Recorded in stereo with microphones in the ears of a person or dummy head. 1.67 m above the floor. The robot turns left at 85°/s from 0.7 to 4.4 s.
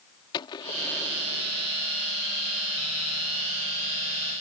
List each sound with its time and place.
0.3 s a gunshot: 30° left; by 1.7 s 55° right